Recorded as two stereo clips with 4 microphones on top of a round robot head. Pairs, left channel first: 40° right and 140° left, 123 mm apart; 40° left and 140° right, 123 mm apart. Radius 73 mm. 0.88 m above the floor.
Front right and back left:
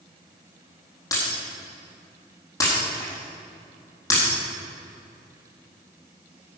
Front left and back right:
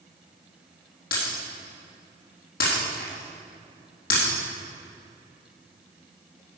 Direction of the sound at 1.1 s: 25° left.